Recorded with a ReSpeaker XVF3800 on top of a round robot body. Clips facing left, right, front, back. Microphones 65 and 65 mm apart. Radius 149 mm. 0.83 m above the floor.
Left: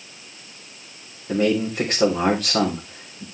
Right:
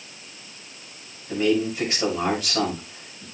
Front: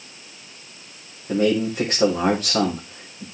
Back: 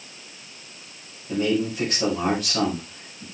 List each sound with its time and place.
1.3 s a man speaking: 45° left, 4 m